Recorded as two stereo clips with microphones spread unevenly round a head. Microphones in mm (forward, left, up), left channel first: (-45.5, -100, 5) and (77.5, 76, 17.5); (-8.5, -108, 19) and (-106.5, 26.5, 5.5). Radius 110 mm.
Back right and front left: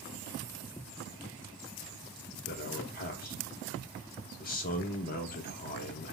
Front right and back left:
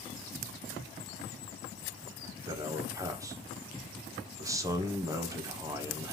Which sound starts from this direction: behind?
A man speaking, at 2.5 s.